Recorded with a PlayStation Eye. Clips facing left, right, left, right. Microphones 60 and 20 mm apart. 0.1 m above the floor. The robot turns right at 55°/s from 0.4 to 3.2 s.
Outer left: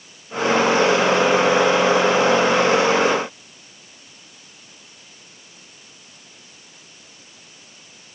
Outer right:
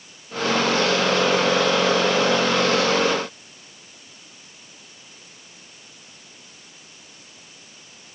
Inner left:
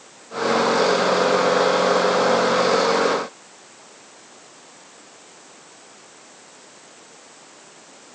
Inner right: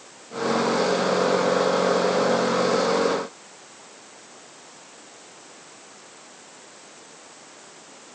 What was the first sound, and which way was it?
Only background noise.